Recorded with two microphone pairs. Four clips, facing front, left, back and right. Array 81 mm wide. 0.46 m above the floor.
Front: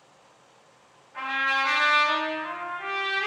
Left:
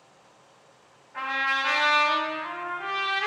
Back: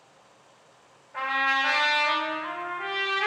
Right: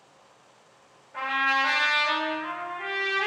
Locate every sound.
1.1 s a trumpet: 135° right, 1.3 m